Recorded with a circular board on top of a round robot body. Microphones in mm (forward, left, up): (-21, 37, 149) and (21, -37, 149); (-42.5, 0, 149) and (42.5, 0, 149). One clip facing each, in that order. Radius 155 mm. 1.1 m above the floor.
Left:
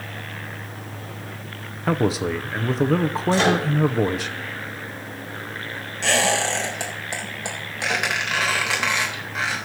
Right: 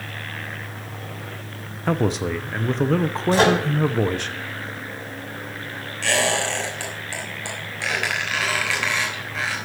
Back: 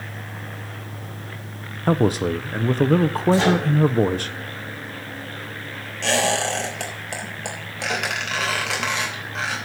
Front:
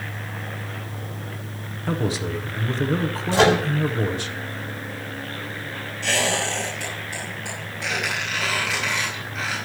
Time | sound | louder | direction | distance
1.9 | a man speaking | left 1 dB, back 6 dB | 155° right | 0.7 m
3.3 | a microwave | right 3 dB, front 3 dB | 20° right | 4 m
6.0 | a squeak | left 1 dB, back 3 dB | 170° right | 3.5 m